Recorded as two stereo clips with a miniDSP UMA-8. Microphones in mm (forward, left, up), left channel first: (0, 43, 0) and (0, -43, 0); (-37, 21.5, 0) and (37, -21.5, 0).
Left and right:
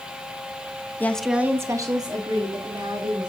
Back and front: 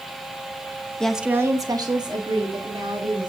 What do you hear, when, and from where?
1.0 s a woman speaking: 85° left, 0.8 m; by 3.3 s 60° right, 3.5 m